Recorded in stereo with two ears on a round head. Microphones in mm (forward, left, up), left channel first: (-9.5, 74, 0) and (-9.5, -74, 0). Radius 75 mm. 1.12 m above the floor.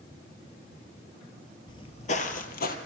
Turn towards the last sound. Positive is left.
turn(degrees=60)  # may be behind; listen again after turning